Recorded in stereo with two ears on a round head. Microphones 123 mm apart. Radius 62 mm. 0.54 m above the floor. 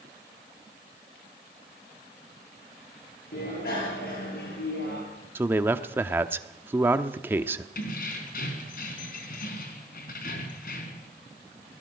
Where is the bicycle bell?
85° left, 8.5 m.